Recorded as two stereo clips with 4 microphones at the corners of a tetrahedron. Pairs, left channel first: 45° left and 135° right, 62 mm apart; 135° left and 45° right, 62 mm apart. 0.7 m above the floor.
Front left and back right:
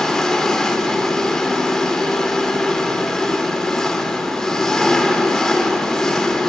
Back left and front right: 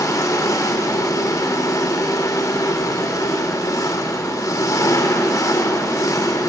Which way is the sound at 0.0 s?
125° left.